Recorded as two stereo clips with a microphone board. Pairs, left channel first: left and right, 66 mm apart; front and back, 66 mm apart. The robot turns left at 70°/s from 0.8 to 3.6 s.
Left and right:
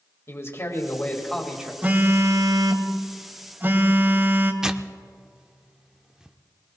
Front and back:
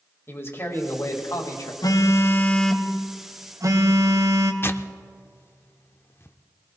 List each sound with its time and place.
0.3 s a man speaking: 45° left, 2.5 m; by 1.7 s 20° right, 2.5 m
1.8 s a phone buzzing: 20° right, 1.0 m; by 4.5 s 145° right, 1.0 m
4.6 s tearing paper: 15° right, 0.6 m